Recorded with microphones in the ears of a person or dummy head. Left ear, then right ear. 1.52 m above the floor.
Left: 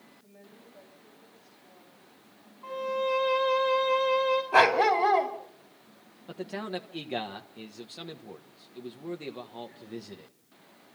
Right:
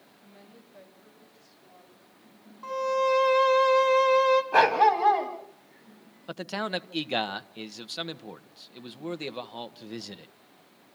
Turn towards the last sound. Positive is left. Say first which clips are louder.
# right 4 dB
turn(degrees=-50)  # may be behind; listen again after turning